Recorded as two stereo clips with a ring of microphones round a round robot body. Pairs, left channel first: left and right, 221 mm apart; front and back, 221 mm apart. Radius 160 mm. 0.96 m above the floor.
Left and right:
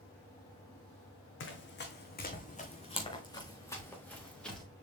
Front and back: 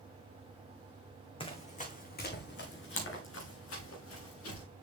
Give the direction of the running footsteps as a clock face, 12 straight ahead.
10 o'clock.